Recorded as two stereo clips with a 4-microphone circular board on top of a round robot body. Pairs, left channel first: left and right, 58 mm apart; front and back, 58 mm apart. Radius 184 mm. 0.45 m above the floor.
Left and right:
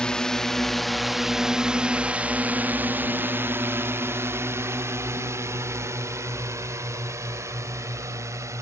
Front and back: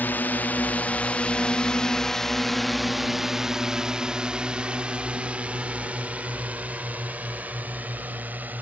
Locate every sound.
0.0 s a drone: 25° left; by 8.6 s 120° right